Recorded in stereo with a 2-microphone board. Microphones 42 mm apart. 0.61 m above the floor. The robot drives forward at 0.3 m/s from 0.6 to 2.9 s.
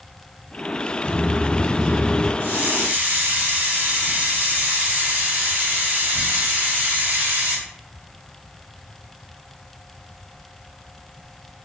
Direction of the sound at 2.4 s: 50° right (ahead or behind).